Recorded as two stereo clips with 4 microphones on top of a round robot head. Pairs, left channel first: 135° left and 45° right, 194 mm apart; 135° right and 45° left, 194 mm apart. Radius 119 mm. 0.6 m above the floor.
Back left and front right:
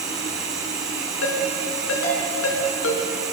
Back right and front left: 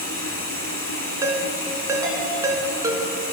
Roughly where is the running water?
Behind right.